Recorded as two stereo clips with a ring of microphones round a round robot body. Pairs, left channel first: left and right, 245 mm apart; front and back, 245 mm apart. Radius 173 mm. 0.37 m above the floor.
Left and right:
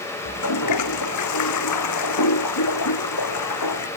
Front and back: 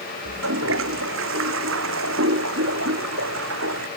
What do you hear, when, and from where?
0.2 s a toilet flushing: 125° left